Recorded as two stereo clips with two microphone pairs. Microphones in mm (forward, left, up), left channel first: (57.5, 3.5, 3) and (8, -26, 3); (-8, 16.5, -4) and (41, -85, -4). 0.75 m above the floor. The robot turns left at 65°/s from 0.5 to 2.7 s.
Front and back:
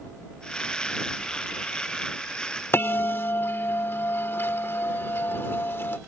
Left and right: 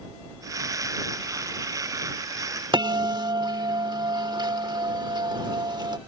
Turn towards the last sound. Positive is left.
turn(degrees=-15)